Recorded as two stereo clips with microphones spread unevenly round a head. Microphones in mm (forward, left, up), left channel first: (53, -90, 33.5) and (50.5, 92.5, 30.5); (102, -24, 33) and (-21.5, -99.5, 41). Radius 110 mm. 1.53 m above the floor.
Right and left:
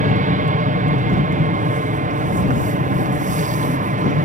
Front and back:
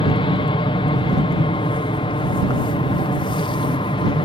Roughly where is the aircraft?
Left.